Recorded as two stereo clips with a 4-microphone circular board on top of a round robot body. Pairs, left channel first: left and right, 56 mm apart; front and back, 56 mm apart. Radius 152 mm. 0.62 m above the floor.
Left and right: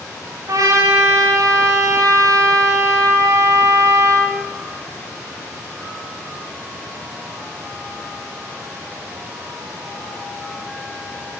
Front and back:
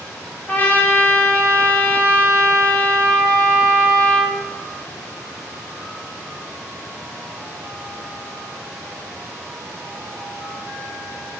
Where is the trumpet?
65° right, 2 m.